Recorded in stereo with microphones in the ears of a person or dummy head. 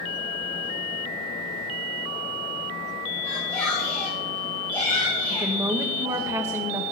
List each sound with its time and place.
3.2 s a shout: 15° left (ahead or behind), 5 m; by 6.3 s 35° left (ahead or behind), 4 m
5.3 s a woman speaking: 15° right (ahead or behind), 1.5 m